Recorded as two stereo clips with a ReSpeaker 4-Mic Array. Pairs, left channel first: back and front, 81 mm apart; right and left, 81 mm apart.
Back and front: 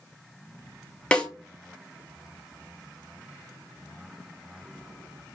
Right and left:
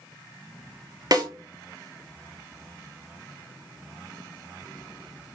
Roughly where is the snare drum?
Left.